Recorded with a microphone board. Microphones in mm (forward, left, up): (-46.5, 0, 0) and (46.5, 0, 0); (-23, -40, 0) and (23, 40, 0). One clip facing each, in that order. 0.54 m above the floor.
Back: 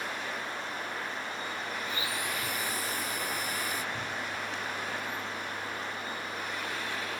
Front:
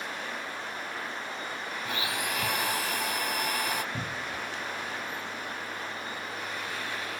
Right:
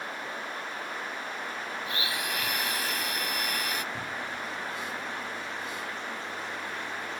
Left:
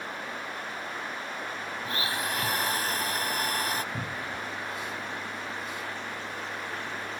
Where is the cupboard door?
5° right.